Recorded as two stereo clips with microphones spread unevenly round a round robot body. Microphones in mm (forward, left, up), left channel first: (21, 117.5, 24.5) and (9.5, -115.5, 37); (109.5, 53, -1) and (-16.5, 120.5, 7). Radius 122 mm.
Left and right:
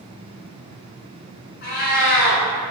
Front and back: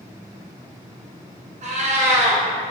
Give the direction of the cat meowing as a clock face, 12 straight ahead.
7 o'clock.